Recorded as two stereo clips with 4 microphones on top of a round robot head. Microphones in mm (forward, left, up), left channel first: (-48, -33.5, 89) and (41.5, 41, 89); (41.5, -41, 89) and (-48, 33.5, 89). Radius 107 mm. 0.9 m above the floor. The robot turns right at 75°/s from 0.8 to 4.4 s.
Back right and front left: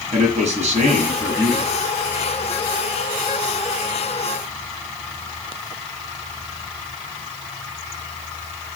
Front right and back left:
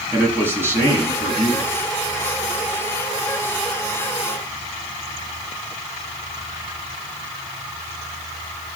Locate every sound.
0.1 s a man speaking: 70° left, 7.5 m; by 1.7 s 135° left, 7.5 m